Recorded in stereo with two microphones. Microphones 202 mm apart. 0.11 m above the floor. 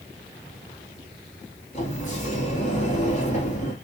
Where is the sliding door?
35° left (ahead or behind), 1.3 m.